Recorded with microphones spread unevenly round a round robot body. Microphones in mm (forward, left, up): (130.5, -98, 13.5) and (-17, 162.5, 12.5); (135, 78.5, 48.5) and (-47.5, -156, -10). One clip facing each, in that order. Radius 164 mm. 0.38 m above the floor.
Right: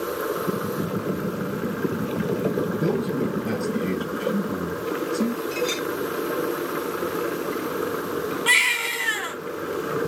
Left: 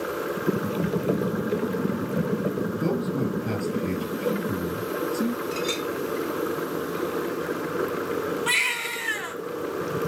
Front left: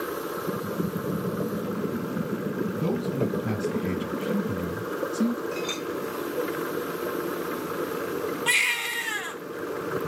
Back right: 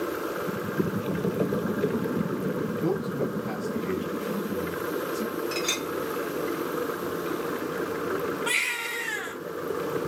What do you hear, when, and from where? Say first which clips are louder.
2.8 s a man speaking: even, front left 1 dB; 20° left, 5.5 m
5.5 s a clink: right 2 dB, even; 145° right, 1.3 m
8.5 s a baby crying: right 1 dB, back right 1 dB; 5° right, 3 m